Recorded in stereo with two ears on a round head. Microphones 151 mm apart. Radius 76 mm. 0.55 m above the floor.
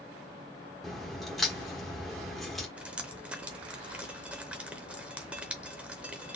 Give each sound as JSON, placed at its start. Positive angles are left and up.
{"t": 0.8, "sound": "a crack", "side_deg": 0, "distance_m": 1.3}
{"t": 2.8, "sound": "dripping", "side_deg": -5, "distance_m": 0.7}